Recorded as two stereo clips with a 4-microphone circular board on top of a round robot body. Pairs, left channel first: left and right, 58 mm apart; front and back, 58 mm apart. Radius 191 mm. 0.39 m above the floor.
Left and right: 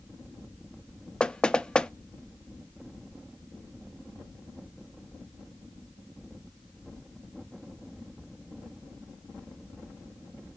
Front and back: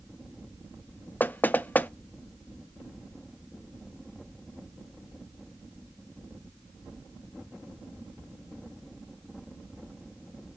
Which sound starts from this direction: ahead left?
Knocking, at 1.2 s.